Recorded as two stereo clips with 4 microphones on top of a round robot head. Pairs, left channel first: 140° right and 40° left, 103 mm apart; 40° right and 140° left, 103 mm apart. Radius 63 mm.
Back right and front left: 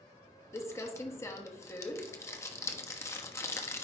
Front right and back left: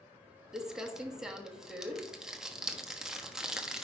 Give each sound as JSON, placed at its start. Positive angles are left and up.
{"t": 0.5, "sound": "crumpling", "azimuth_deg": -145, "distance_m": 1.1}